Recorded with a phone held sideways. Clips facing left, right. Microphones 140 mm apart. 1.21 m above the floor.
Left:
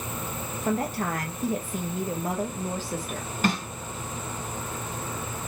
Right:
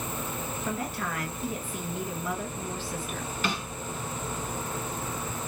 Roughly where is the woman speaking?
Left.